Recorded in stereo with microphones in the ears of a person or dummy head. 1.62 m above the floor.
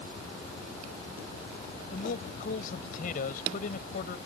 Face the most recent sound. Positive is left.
turn(degrees=55)  # may be behind; listen again after turning